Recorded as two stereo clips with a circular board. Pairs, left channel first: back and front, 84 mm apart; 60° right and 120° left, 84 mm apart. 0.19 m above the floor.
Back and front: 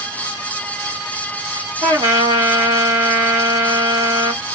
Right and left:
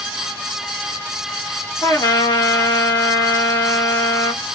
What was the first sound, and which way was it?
A trumpet, 10° right.